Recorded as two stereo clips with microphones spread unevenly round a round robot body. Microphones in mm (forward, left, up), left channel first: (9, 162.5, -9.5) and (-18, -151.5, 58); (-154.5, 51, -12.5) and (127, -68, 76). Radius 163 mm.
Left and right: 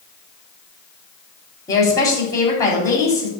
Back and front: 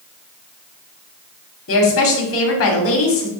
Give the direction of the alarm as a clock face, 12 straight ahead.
I don't hear an alarm.